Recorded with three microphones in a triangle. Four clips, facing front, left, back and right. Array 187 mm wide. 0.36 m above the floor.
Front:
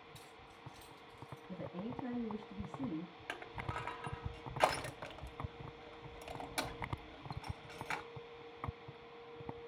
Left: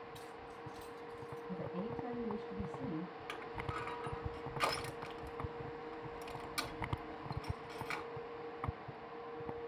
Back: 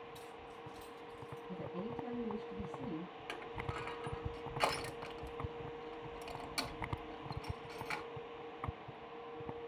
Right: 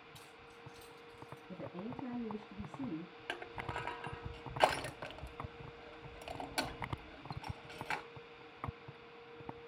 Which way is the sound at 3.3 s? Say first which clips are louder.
Right 3 dB, even; 65° right.